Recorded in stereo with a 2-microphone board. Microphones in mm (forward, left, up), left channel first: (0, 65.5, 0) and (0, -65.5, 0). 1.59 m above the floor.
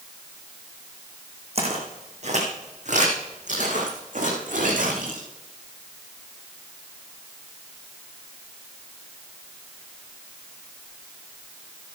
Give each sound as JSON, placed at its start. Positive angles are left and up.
{"t": 1.6, "sound": "footsteps", "side_deg": -50, "distance_m": 5.0}